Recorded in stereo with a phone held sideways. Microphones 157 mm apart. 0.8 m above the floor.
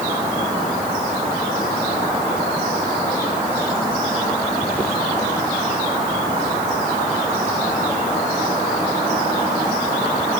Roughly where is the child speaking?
I don't hear a child speaking.